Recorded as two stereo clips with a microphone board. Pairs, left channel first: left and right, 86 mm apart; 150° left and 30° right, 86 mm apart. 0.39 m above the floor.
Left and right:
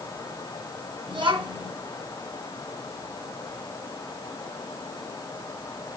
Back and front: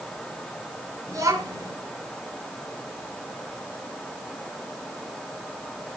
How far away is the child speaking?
About 2 m.